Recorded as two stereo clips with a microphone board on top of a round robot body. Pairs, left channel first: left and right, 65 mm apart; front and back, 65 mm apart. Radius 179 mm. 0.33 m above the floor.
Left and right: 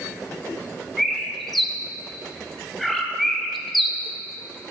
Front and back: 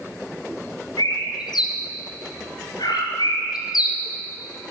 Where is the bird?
Straight ahead, 1.3 m.